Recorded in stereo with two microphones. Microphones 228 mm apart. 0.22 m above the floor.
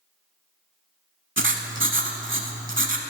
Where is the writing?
60° right (ahead or behind), 0.7 m.